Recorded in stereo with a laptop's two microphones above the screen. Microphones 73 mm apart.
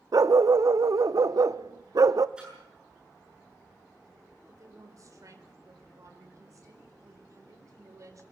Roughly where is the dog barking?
Right.